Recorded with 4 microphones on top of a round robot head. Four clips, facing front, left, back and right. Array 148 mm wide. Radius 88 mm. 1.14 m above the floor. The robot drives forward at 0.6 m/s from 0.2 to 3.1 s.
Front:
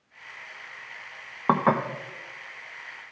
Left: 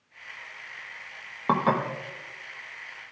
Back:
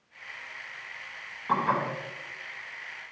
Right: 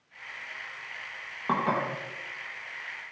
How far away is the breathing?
I don't hear breathing.